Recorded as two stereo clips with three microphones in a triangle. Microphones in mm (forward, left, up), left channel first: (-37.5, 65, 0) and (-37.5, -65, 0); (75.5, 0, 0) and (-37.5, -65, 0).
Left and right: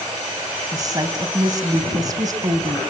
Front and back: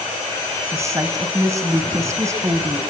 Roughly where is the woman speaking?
Right.